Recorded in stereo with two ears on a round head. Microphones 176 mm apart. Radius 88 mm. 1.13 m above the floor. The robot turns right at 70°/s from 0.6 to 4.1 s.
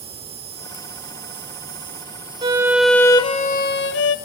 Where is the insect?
145° right, 3 m; by 4.3 s 100° left, 3 m.